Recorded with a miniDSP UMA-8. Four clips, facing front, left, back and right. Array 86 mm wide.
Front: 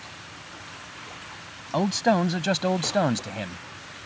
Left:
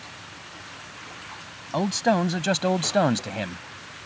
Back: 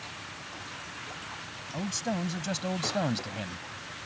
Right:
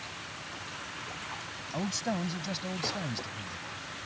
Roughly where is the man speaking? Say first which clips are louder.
Left 11 dB, front 11 dB; ahead left.